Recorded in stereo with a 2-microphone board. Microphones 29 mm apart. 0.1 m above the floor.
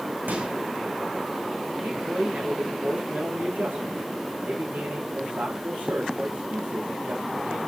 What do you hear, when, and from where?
0.3 s a microwave: 75° right (ahead or behind), 5.5 m
1.8 s a man speaking: 75° right (ahead or behind), 8.5 m